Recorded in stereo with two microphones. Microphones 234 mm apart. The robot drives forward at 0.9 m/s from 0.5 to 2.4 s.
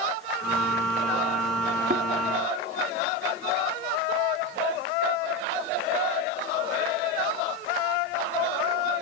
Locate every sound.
1.9 s a thud: 35° right (ahead or behind), 1.4 m; by 2.1 s 40° right (ahead or behind), 1.2 m